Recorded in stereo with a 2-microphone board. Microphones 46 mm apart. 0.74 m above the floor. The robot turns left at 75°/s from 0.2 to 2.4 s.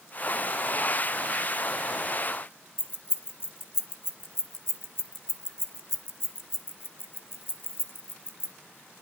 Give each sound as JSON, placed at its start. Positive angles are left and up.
{"t": 2.8, "sound": "keys jangling", "side_deg": 55, "distance_m": 0.5}